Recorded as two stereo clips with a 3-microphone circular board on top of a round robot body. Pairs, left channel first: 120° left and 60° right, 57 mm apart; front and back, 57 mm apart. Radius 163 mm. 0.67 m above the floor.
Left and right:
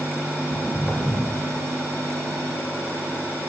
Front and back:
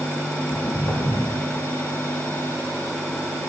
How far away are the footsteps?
About 2.5 m.